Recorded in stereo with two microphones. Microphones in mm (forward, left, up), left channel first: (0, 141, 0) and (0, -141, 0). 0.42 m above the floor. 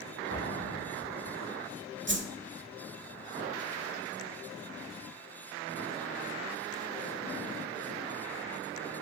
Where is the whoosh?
40° right (ahead or behind), 1.3 m.